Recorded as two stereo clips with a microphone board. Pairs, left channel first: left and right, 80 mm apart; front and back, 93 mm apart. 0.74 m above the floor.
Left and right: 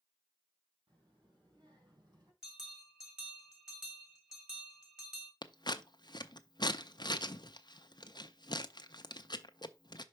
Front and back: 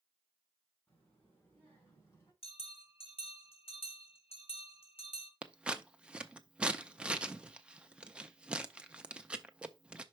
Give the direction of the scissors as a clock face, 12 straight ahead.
9 o'clock.